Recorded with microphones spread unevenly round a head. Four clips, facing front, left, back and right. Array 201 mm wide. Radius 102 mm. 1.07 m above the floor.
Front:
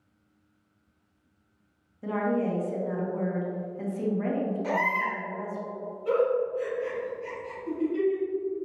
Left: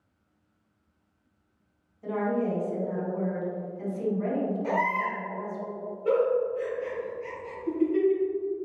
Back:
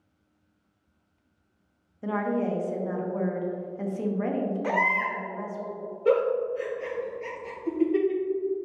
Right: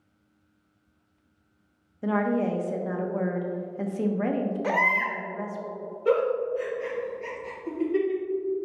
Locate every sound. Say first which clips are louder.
2.0 s a woman speaking: right 3 dB, even; 95° right, 1.4 m
4.6 s a baby crying: right 1 dB, back 1 dB; 110° right, 1.9 m
6.0 s a giggle: even, back 2 dB; 160° right, 2.5 m